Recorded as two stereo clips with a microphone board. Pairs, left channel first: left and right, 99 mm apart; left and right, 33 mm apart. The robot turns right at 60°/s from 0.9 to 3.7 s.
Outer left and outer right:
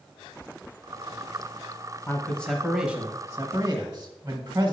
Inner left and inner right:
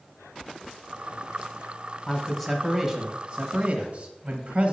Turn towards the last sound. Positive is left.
turn(degrees=-120)